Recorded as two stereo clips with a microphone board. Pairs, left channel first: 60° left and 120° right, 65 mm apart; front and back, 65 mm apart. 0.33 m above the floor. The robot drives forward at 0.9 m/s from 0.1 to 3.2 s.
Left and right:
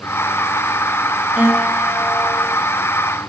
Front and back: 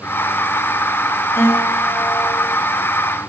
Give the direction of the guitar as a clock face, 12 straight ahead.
2 o'clock.